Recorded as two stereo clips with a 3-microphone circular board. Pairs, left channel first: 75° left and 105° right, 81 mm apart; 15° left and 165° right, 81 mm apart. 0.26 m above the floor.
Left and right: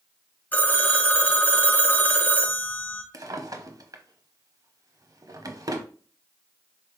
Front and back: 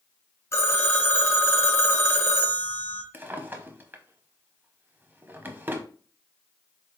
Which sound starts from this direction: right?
A drawer, at 3.1 s.